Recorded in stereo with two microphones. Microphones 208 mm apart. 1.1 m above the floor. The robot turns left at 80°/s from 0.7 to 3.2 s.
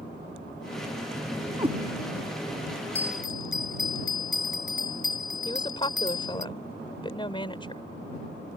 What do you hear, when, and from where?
1.6 s a cat meowing: 20° right (ahead or behind); by 1.8 s 35° right (ahead or behind)
3.0 s a bell: 50° left (ahead or behind); by 6.5 s 70° left (ahead or behind)
5.5 s a woman speaking: 25° left (ahead or behind)